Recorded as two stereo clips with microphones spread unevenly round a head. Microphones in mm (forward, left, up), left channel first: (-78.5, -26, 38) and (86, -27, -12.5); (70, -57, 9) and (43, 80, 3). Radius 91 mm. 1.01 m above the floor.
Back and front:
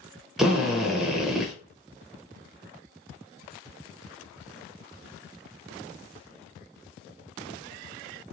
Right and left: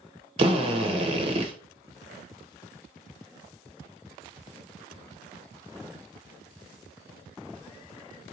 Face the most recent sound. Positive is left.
turn(degrees=70)